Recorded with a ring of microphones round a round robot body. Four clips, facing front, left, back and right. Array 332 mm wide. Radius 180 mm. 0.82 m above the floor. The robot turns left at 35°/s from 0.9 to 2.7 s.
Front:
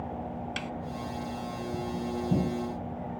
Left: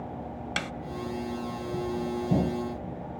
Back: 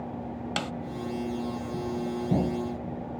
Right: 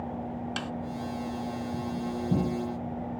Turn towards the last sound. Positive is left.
turn(degrees=90)